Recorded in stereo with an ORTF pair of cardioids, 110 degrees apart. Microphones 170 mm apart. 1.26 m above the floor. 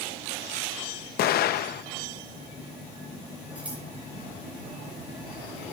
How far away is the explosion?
About 0.8 m.